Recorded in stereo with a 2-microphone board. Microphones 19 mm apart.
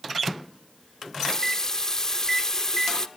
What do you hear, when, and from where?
1.0 s a running tap: 30° left (ahead or behind), 0.6 m